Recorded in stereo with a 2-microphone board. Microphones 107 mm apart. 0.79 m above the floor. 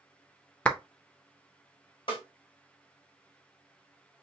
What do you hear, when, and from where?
0.7 s a clap: 10° left (ahead or behind), 0.5 m
2.1 s a snare drum: 50° left (ahead or behind), 1.7 m